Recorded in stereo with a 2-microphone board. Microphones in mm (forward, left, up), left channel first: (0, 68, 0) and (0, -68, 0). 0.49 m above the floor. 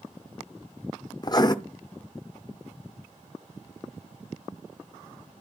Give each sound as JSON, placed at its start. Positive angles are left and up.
{"t": 1.2, "sound": "writing", "side_deg": 30, "distance_m": 0.5}